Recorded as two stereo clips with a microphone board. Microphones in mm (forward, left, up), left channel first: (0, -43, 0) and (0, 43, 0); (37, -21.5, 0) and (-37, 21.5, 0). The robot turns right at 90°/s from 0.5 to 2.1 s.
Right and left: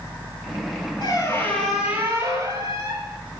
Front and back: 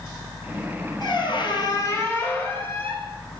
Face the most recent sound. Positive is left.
turn(degrees=35)